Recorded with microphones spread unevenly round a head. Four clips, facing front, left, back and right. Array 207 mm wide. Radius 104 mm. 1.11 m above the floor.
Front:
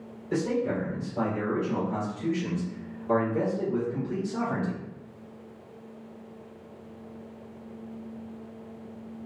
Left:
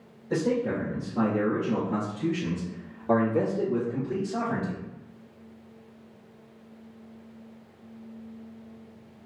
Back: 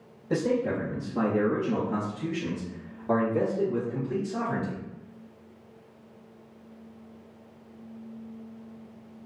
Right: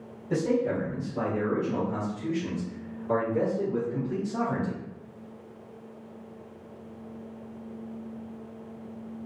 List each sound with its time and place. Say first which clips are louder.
0.3 s a man speaking: even, back 1 dB; 175° right, 1.8 m; by 4.8 s 110° left, 2.5 m